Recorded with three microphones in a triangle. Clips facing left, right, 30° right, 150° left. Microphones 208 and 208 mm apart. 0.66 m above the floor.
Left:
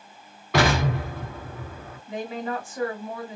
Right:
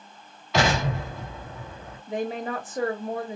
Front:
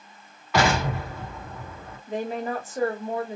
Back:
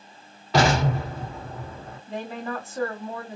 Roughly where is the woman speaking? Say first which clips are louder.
Right 1 dB, front 4 dB; right.